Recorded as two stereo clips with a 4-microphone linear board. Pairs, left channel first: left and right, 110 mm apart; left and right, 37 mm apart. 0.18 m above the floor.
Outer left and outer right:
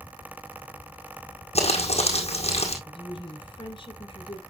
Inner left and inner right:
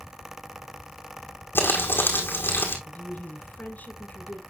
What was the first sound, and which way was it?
Crumpling, 70° left (ahead or behind).